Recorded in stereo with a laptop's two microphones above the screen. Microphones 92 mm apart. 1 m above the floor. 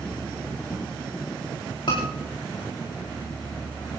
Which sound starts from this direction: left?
A scream, at 1.9 s.